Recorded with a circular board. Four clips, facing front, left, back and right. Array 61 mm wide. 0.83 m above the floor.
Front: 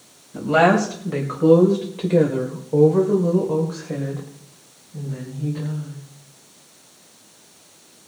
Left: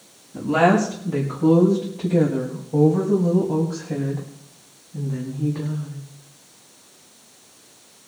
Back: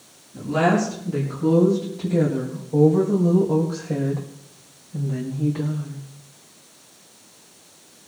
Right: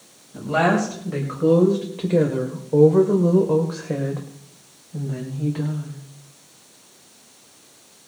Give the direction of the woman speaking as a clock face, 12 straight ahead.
12 o'clock.